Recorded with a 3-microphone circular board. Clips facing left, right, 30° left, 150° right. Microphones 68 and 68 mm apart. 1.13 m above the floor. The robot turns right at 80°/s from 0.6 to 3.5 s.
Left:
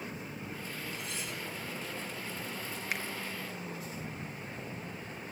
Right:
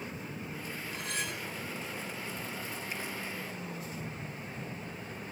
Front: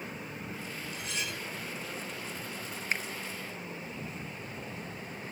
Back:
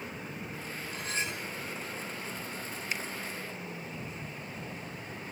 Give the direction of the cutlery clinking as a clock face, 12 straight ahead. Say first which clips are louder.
Right 3 dB, back 3 dB; 4 o'clock.